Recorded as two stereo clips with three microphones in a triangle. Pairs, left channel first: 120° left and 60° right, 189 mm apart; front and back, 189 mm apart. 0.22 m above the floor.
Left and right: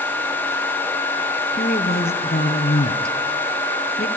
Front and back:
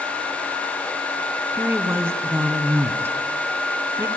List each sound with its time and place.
1.5 s a woman speaking: 105° left, 1.9 m